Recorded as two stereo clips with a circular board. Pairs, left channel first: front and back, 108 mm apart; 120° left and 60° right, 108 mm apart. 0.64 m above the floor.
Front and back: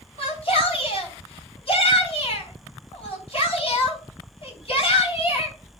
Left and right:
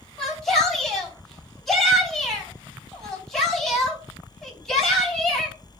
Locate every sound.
0.2 s a shout: 35° left, 4.5 m